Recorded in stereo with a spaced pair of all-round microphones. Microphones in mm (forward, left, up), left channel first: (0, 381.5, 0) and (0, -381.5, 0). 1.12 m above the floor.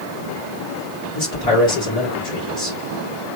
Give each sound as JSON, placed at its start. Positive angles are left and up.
{"t": 1.1, "sound": "a man speaking", "side_deg": 50, "distance_m": 1.6}